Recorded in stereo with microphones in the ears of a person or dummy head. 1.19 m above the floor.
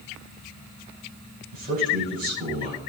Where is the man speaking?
45° right (ahead or behind), 9.5 m.